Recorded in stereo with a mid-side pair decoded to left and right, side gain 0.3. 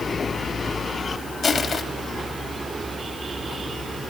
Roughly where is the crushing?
Left.